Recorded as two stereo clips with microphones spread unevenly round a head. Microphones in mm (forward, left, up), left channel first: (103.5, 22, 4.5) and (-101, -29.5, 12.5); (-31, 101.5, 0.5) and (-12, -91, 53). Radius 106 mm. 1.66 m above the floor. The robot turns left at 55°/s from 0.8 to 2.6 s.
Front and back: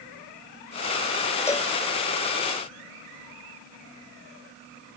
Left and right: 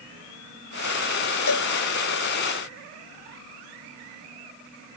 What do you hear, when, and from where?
1.5 s a cowbell: 95° left; by 1.7 s 80° left